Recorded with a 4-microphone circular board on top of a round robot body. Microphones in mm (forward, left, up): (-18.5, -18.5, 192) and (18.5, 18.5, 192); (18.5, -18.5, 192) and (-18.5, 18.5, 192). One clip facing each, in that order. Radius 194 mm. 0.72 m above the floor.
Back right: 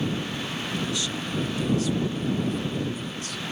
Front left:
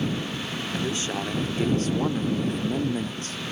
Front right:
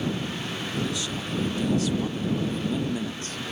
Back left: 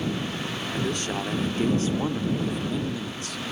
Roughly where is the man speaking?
Left.